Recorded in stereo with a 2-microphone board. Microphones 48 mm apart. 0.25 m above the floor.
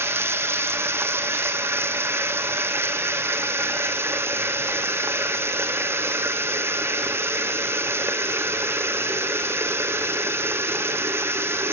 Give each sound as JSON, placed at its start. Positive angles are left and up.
{"t": 0.0, "sound": "running water", "side_deg": -60, "distance_m": 1.3}